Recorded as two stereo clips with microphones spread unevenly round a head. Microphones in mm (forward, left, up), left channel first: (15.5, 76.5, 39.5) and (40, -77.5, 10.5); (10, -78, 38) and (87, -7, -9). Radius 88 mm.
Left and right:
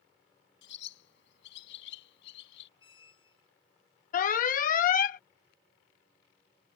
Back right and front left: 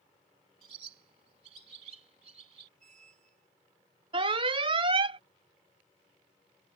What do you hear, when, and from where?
0.6 s a bird: 95° left
2.8 s a squeak: 40° left
4.1 s an alarm: 65° left